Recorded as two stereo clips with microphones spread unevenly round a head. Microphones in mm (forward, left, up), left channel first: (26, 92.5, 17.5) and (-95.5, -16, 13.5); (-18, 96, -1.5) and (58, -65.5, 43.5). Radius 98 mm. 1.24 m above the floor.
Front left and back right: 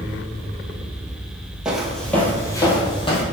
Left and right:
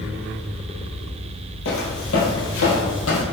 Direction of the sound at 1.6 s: 135° left.